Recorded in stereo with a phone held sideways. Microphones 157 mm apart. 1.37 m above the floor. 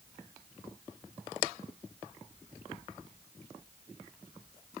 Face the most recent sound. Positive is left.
No sound to turn to.